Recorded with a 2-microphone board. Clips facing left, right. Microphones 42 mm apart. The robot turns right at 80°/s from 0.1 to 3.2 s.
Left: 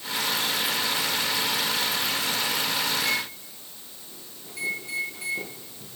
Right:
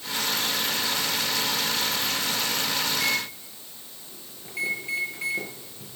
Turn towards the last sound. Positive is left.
turn(degrees=-35)  # may be behind; listen again after turning